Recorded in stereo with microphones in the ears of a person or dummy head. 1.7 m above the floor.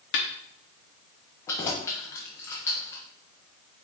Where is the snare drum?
60° left (ahead or behind), 1.0 m.